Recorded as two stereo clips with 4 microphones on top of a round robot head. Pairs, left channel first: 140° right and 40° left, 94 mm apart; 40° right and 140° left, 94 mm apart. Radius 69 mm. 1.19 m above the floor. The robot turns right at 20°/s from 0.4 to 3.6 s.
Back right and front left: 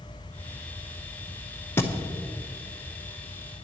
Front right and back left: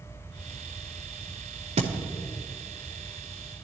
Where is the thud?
155° left, 0.8 m; by 1.9 s 160° left, 0.8 m.